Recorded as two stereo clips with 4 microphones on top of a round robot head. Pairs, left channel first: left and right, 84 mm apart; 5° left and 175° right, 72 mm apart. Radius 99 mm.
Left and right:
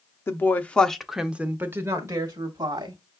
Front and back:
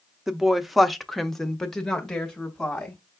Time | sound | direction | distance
0.3 | a woman speaking | 105° left | 0.8 m